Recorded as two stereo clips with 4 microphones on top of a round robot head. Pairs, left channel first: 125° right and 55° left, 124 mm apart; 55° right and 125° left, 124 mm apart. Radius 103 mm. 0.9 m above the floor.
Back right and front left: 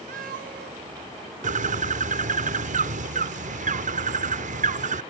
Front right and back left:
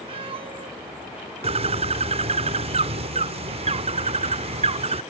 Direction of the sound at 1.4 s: 80° left.